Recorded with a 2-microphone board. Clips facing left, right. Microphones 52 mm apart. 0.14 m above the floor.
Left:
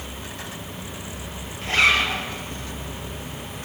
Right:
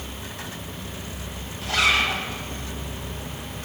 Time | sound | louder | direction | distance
1.6 | a zipper | left 2 dB | 40° left (ahead or behind) | 3 m